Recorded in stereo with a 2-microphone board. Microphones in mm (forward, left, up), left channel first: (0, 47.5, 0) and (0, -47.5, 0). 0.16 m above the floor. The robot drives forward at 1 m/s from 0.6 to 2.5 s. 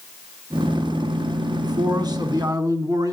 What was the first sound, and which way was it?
A man speaking, 45° right (ahead or behind).